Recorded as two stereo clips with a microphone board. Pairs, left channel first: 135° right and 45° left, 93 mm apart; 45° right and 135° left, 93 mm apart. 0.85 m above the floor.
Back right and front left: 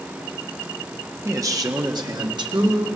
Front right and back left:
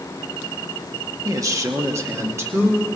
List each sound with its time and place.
1.2 s a man speaking: 95° left, 1.5 m; by 2.9 s 75° left, 3 m